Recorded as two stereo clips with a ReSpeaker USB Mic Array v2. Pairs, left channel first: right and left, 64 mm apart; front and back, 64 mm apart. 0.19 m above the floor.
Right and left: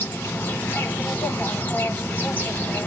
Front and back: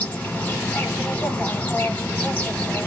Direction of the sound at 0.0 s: 55° right.